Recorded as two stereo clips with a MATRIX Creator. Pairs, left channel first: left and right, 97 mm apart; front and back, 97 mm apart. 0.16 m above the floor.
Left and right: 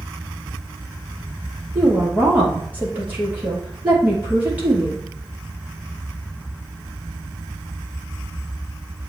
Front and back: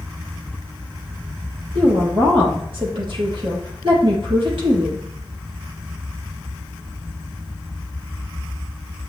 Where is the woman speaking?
160° right, 4 m.